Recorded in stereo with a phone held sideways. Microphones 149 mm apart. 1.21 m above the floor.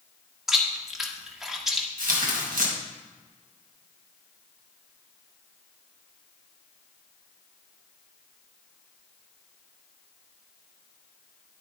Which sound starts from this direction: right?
Tearing paper, at 2.0 s.